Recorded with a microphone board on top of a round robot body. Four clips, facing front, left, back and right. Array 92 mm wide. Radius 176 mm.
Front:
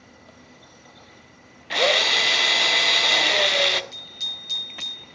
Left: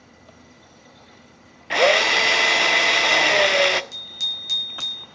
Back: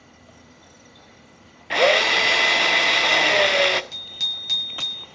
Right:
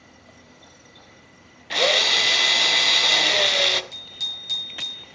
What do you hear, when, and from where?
1.7 s a drill: 120° left, 1.5 m
3.9 s a bicycle bell: 170° left, 6.5 m